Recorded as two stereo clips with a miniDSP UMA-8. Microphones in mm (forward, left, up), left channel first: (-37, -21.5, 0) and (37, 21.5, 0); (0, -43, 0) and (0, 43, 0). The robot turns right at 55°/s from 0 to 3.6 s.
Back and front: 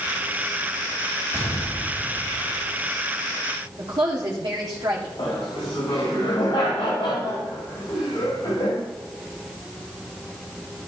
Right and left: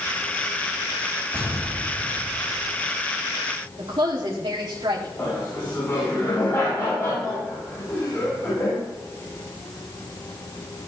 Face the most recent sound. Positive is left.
turn(degrees=-150)